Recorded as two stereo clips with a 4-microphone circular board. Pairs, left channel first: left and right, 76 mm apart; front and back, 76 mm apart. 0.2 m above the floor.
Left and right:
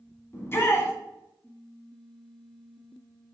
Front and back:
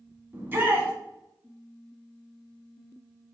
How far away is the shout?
About 1.2 m.